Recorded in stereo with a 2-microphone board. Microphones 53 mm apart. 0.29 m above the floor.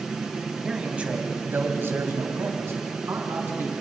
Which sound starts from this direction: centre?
A man speaking, at 0.6 s.